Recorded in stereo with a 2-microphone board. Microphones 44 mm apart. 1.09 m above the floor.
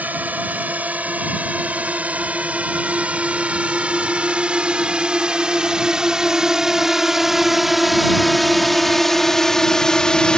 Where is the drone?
35° right (ahead or behind); by 10.4 s 20° left (ahead or behind).